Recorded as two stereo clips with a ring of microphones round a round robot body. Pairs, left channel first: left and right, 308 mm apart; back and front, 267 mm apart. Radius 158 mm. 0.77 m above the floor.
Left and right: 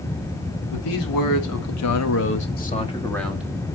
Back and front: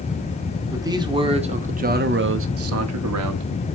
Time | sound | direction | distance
0.7 | a man speaking | 80° left | 2.5 m